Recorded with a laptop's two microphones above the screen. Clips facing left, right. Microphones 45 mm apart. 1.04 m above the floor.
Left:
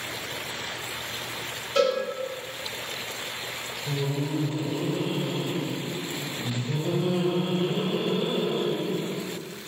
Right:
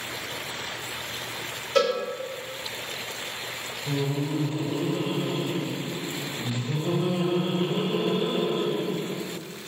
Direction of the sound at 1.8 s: 65° right (ahead or behind).